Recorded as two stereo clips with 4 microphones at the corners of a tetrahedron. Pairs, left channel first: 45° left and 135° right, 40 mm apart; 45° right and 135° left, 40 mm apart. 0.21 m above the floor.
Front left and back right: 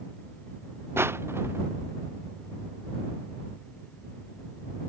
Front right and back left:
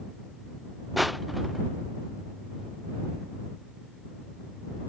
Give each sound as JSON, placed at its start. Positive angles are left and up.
{"t": 1.0, "sound": "crushing", "azimuth_deg": -140}